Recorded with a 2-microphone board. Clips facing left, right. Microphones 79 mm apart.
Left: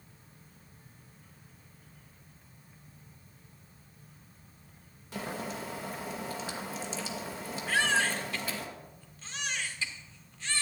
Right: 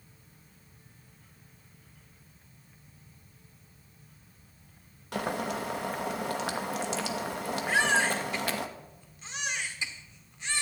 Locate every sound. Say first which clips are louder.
5.1 s boiling: right 6 dB; 60° right (ahead or behind), 1.3 m
7.7 s a baby crying: right 2 dB; 20° right (ahead or behind), 1.8 m